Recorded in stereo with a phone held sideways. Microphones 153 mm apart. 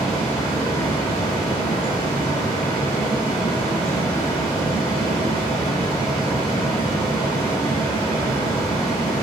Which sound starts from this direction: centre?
A fan, at 0.0 s.